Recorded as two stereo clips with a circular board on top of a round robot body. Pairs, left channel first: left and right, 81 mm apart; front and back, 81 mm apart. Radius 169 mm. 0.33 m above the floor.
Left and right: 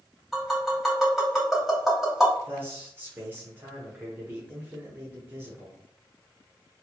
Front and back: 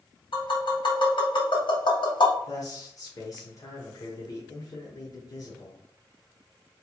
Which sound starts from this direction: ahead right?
A man speaking, at 2.5 s.